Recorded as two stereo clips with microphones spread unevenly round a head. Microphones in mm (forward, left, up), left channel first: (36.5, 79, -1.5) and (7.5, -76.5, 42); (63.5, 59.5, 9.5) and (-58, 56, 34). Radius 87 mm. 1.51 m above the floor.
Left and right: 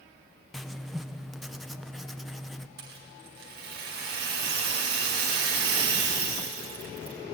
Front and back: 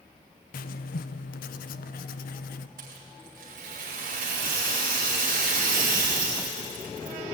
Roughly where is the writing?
Ahead.